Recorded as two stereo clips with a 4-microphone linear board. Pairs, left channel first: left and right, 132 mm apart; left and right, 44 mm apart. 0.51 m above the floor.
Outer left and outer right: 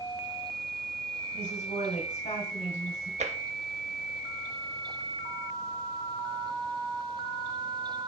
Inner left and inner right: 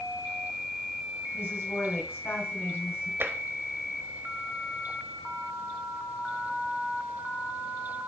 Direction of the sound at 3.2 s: 60° right (ahead or behind).